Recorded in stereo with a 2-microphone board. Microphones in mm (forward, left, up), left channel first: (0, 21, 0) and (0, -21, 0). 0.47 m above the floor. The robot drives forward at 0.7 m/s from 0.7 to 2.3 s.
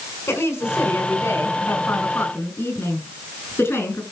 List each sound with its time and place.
0.3 s a woman speaking: 70° left (ahead or behind), 4.5 m; by 4.0 s 60° left (ahead or behind), 5 m